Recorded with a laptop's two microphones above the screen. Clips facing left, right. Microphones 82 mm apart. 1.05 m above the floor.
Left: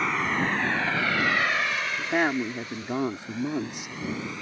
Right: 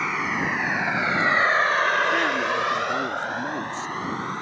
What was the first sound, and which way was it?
A vehicle, 5° right (ahead or behind).